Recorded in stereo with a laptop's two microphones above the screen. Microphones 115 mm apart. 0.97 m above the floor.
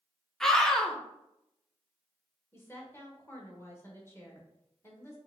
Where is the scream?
5° left (ahead or behind), 0.7 m.